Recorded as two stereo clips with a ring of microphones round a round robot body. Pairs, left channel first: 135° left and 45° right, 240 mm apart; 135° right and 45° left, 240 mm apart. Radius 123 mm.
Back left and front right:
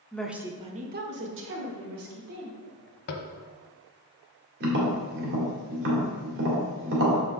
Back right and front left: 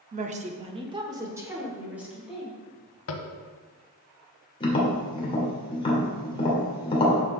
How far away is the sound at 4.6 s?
About 2.0 m.